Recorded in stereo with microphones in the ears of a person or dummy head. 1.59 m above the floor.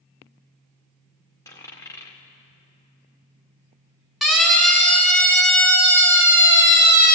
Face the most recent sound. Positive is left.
turn(degrees=30)  # may be behind; listen again after turning